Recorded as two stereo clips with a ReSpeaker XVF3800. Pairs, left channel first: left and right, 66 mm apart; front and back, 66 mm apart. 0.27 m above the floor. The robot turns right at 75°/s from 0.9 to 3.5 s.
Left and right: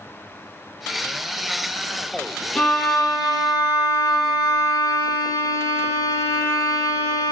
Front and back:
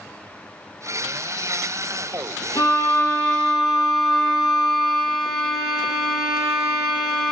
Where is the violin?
10° left, 1.5 m; by 7.3 s 80° left, 1.5 m.